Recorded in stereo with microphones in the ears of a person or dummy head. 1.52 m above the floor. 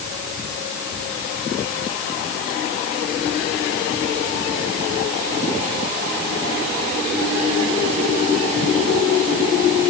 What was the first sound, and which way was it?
Only background noise.